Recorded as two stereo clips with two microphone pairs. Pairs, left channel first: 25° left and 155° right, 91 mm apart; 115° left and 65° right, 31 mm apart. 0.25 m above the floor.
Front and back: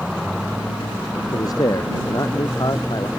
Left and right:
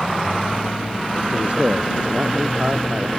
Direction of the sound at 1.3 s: 20° right.